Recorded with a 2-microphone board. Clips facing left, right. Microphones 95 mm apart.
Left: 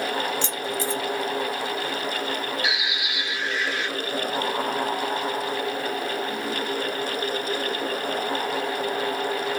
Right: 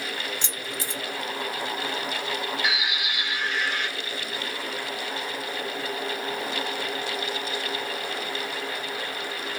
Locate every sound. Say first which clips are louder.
0.4 s keys jangling: left 7 dB; 15° right (ahead or behind), 1.9 m
2.6 s a bird: even; 50° right (ahead or behind), 2 m